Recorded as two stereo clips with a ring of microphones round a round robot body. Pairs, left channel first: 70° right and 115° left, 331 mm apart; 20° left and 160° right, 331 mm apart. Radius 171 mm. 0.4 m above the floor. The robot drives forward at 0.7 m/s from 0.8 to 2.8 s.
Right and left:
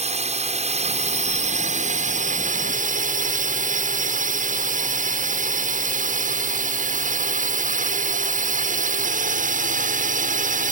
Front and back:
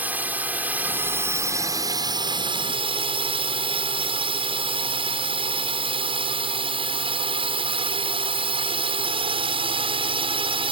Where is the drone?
125° left; by 10.7 s 145° left.